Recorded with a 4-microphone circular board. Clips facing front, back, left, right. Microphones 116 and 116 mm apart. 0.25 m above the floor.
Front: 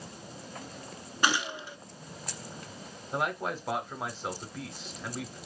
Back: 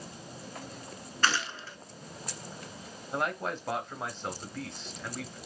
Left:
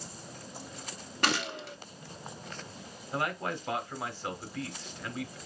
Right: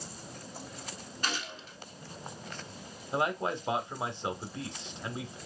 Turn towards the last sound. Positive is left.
turn(degrees=-85)